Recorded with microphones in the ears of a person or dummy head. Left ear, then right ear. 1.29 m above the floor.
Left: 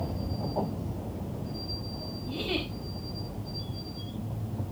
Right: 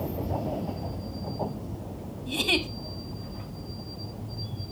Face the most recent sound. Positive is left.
turn(degrees=-45)  # may be behind; listen again after turning